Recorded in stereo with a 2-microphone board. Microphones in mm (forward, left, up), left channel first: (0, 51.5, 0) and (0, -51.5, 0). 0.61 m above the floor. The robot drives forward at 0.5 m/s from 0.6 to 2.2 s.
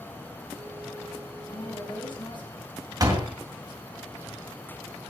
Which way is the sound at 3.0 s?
35° right (ahead or behind).